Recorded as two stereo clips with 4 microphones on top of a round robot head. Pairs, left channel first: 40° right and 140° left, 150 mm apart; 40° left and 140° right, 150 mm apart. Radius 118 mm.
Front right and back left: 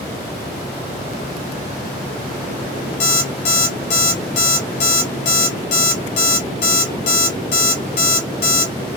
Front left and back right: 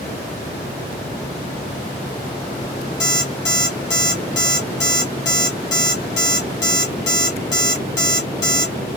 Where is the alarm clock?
15° right, 0.6 m.